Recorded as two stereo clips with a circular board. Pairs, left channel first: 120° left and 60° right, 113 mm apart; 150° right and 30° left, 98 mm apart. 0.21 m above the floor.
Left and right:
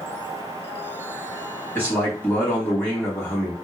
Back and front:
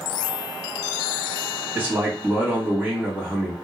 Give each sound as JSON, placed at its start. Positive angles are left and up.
{"t": 1.8, "sound": "a man speaking", "azimuth_deg": 70, "distance_m": 1.4}